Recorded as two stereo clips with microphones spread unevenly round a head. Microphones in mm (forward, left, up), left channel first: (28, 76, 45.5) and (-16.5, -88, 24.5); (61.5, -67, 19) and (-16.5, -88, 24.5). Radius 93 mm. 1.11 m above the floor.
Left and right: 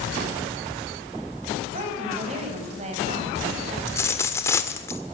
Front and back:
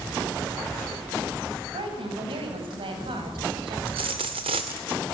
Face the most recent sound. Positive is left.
turn(degrees=150)